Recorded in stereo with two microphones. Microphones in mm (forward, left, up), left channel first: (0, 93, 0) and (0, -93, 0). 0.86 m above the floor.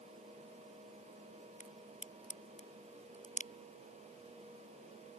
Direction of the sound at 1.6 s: 45° left (ahead or behind).